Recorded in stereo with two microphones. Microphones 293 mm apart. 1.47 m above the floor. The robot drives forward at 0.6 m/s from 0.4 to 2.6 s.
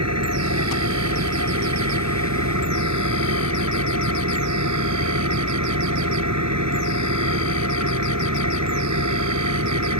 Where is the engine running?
60° right (ahead or behind); by 10.0 s 70° right (ahead or behind).